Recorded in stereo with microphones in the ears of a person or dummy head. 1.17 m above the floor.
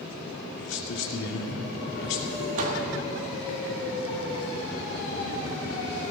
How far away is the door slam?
About 1.9 m.